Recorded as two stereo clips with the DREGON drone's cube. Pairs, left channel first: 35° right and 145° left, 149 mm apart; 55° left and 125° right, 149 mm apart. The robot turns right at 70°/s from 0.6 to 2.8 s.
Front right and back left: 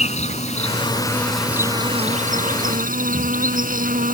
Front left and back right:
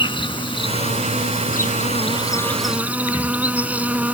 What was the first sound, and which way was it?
An insect, straight ahead.